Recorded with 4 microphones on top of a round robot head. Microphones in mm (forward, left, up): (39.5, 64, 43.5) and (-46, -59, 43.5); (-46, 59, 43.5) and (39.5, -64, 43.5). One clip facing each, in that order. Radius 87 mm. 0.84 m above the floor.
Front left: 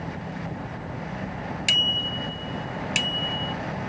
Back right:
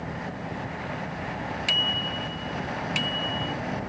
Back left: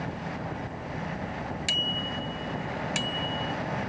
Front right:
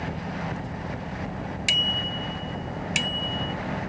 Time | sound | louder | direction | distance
1.7 | a bicycle bell | back right 1 dB, front right 1 dB | 15° left | ?